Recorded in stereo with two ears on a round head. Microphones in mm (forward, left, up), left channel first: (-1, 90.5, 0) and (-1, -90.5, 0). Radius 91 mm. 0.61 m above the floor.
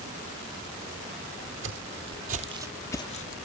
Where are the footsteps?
65° right (ahead or behind), 1.3 m; by 3.4 s 45° left (ahead or behind), 0.8 m.